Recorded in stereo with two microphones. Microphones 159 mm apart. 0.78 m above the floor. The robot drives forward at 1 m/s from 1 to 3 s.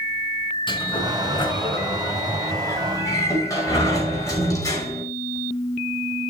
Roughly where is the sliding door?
Left.